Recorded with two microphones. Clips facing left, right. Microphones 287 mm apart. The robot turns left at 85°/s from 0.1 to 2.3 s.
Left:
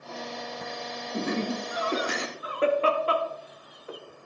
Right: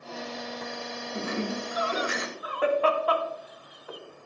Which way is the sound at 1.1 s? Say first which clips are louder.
Left 3 dB; 45° left (ahead or behind).